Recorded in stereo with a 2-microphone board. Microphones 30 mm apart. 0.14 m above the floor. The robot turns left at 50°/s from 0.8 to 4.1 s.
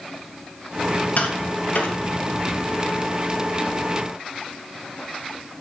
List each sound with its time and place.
1.2 s tapping: 60° left (ahead or behind), 3.5 m